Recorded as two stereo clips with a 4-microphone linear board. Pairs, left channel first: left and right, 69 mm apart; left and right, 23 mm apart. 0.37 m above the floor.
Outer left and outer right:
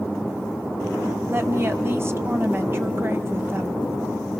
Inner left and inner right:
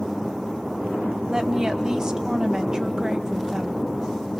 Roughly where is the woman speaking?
Right.